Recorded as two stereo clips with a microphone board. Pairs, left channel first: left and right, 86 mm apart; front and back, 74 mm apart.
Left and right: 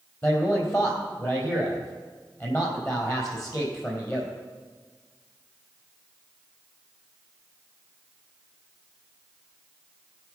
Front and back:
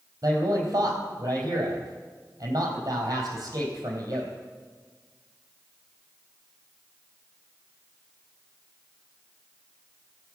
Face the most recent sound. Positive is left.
turn(degrees=145)